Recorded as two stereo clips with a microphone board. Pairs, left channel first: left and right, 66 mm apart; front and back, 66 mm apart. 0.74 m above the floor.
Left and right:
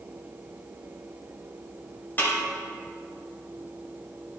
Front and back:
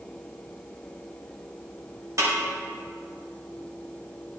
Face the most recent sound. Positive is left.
turn(degrees=150)